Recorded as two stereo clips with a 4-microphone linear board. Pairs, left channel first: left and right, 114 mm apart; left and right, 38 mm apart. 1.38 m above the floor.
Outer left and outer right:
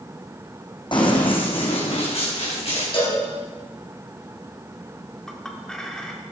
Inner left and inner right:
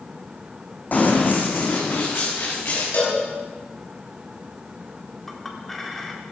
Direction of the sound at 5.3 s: 5° left (ahead or behind).